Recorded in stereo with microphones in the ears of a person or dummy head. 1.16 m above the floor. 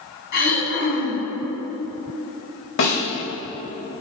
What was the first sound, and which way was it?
Throat clearing, 55° left (ahead or behind).